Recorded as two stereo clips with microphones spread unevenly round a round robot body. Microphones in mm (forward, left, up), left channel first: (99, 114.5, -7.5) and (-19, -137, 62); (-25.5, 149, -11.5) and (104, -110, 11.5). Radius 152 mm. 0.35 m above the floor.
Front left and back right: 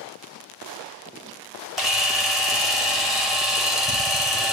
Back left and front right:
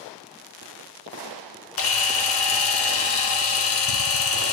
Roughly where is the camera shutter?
Behind left.